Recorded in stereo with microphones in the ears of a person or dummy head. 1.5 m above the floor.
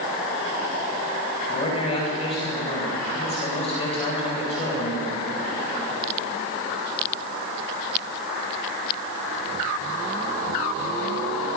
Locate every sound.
1.5 s a man speaking: 35° left (ahead or behind), 10 m